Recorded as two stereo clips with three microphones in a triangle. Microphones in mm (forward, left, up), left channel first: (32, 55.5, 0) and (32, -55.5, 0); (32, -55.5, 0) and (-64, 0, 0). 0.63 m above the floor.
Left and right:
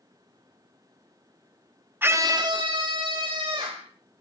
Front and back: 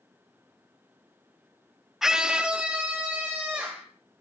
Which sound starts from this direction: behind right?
A scream, at 2.0 s.